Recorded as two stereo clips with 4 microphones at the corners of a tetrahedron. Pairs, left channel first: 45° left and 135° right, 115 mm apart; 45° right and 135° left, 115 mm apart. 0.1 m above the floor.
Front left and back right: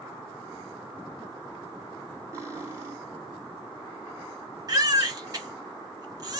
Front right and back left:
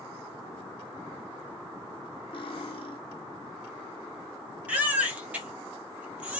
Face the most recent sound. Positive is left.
turn(degrees=-155)